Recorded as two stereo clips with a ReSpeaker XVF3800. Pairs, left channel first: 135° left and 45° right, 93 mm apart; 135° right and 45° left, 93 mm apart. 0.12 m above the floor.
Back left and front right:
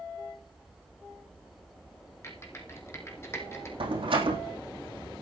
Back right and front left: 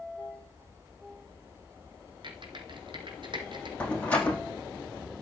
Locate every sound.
2.2 s typing on a keyboard: 75° left, 2.5 m
3.8 s a door slam: 60° right, 3.5 m